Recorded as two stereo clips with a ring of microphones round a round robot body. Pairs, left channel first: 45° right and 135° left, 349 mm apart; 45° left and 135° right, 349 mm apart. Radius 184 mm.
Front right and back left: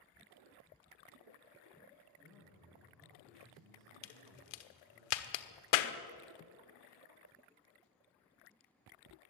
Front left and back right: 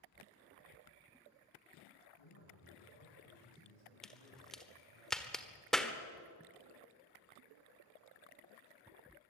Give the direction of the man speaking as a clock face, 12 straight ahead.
11 o'clock.